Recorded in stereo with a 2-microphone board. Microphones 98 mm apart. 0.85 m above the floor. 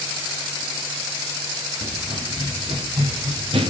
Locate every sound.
1.8 s running footsteps: 85° right, 6.5 m; by 3.7 s 75° right (ahead or behind), 5.5 m